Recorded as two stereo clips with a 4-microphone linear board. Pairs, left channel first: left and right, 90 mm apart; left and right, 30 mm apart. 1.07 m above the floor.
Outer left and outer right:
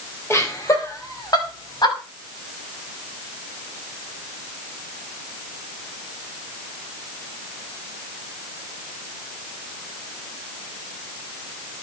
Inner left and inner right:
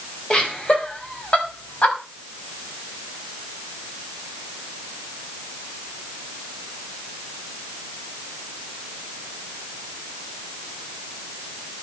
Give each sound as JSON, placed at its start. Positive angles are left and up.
{"t": 0.3, "sound": "laughter", "side_deg": 30, "distance_m": 5.5}